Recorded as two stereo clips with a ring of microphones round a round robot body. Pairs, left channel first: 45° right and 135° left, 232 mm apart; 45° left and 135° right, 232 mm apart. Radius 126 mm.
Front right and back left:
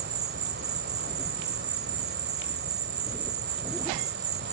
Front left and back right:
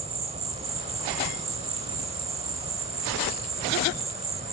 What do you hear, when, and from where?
0.0 s an insect: 165° left